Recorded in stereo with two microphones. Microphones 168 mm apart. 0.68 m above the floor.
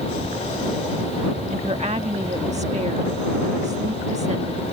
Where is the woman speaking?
40° right (ahead or behind).